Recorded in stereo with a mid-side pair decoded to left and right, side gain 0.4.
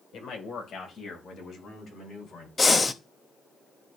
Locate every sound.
0.1 s a man speaking: 70° left, 2.0 m; by 2.5 s 60° left, 5.5 m
2.6 s breathing: 30° left, 0.7 m